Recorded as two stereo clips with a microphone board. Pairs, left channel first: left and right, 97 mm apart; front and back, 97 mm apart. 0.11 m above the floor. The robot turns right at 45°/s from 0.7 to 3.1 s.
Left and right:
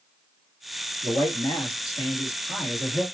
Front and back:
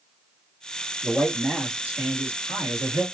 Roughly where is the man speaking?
Left.